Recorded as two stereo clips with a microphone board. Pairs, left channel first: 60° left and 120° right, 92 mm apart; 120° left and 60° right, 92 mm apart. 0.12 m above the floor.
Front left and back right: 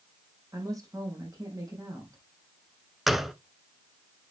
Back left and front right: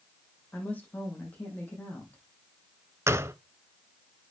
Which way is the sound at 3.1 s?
35° right.